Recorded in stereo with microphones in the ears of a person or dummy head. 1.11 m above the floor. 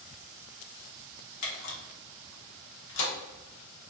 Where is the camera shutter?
70° left (ahead or behind), 1.2 m.